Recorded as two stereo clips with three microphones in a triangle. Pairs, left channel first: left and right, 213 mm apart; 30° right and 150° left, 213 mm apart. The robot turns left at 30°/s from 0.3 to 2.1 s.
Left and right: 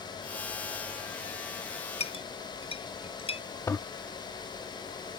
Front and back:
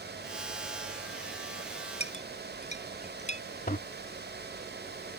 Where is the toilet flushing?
15° left.